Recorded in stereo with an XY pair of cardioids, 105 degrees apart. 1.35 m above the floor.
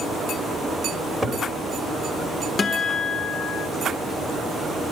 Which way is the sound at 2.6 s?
40° left.